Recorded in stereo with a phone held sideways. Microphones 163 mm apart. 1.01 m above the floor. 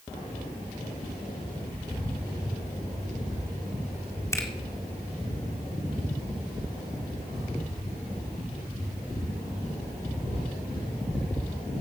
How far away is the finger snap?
About 1.8 m.